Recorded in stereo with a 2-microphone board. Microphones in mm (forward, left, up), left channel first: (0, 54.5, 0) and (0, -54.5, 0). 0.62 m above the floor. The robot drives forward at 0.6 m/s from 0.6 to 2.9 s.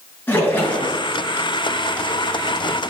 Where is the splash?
15° left (ahead or behind), 5.5 m.